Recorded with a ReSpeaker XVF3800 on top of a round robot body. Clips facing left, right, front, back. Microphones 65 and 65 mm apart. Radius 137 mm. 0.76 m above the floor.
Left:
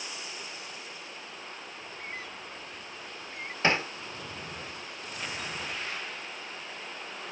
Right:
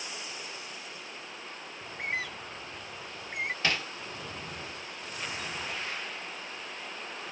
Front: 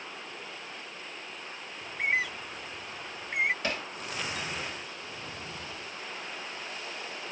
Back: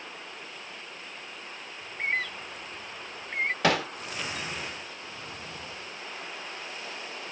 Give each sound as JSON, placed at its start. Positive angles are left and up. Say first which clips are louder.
{"t": 1.8, "sound": "a bird", "louder": "right 8 dB, front 1 dB", "azimuth_deg": -80}
{"t": 3.6, "sound": "hammering", "louder": "left 7 dB, back 9 dB", "azimuth_deg": 155}